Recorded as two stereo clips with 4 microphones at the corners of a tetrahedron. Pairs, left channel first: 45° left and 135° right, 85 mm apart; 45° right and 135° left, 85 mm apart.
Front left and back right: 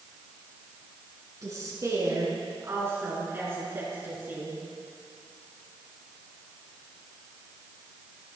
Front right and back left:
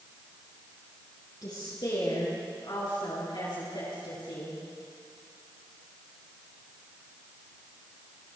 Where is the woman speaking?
85° right, 5 m; by 4.6 s 70° right, 6 m.